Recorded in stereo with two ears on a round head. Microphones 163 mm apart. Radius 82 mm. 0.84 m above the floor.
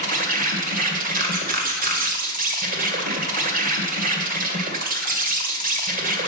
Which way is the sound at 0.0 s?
45° right (ahead or behind).